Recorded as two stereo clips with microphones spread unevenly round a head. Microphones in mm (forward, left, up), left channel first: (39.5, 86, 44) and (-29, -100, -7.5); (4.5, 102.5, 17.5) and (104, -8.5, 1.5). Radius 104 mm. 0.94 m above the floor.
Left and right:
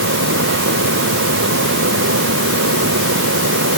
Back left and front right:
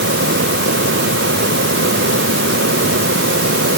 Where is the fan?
80° right.